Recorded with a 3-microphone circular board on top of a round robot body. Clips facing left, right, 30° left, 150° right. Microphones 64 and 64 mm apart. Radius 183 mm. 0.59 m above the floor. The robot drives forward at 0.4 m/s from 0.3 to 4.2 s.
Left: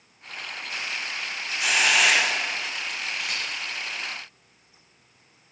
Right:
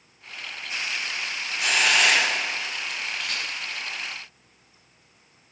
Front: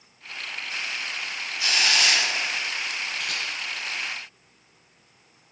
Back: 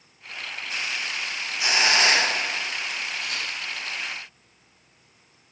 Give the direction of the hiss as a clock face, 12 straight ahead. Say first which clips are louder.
Even, back 3 dB; 6 o'clock.